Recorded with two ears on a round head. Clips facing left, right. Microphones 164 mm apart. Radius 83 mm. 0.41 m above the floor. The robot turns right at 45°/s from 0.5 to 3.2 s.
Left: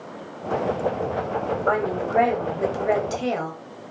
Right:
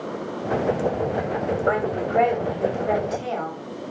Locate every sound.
1.7 s a woman speaking: 25° right, 2 m; by 3.6 s 45° left, 2 m